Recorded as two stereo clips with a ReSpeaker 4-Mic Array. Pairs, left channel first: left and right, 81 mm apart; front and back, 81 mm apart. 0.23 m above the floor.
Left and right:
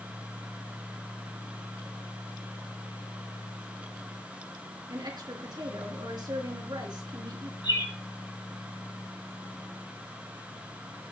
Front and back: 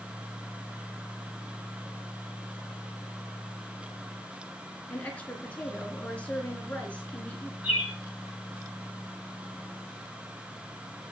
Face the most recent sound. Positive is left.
turn(degrees=105)